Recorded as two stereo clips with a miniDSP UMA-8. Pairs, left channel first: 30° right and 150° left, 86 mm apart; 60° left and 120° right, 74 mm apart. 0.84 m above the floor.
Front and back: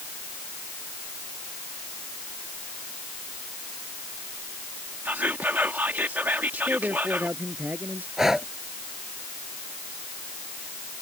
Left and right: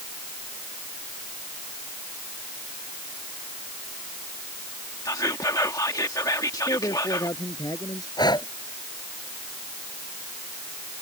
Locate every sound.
5.0 s whispering: 85° left
6.7 s a man speaking: 80° left
8.2 s breathing: 65° left